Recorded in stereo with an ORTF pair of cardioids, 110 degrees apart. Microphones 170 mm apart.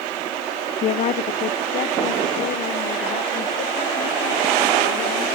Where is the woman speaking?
40° left, 0.6 m; by 5.2 s 70° left, 3 m.